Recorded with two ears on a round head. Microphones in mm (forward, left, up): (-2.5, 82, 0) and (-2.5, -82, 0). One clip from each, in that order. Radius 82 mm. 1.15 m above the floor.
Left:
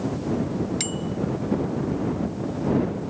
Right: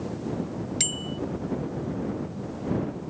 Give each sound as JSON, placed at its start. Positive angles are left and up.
{"t": 0.8, "sound": "a bicycle bell", "side_deg": -20}